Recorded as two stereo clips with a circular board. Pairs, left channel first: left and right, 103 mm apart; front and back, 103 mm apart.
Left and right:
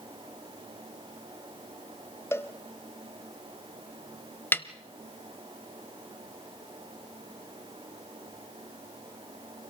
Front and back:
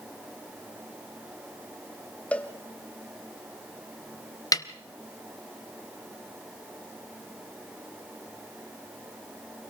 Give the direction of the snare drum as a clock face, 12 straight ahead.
11 o'clock.